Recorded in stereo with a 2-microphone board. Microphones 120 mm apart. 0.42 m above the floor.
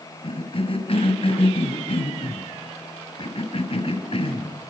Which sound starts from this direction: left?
A cough, at 0.2 s.